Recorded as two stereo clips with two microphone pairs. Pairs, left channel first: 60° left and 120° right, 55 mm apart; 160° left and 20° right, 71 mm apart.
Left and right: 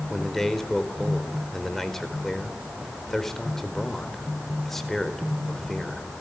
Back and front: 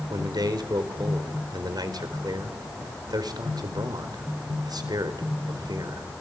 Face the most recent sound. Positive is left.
turn(degrees=-25)